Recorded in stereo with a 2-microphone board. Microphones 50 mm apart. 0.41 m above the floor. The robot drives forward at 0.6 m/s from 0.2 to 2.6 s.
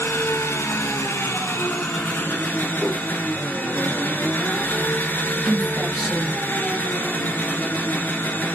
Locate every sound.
0.0 s an engine running: 65° left (ahead or behind), 0.9 m; by 8.6 s 40° left (ahead or behind), 1.4 m
2.8 s a whoosh: 20° right (ahead or behind), 2.5 m
5.5 s a woman speaking: 20° right (ahead or behind), 2.5 m